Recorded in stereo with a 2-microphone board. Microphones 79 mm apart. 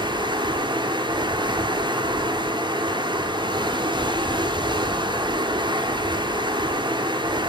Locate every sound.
0.0 s running water: 75° right (ahead or behind), 1.0 m